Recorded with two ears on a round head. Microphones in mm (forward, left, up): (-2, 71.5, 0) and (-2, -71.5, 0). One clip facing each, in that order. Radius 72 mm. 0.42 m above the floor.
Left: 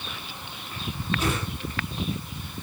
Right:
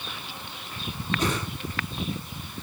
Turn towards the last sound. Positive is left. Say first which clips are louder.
# right 1 dB
turn(degrees=-35)  # may be behind; listen again after turning